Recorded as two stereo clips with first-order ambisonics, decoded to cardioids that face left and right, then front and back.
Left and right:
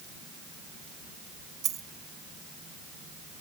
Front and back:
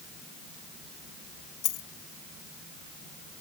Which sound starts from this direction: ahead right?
A dropped coin, at 1.6 s.